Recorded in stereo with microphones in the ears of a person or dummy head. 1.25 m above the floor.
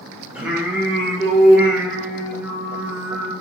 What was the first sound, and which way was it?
Singing, 5° right (ahead or behind).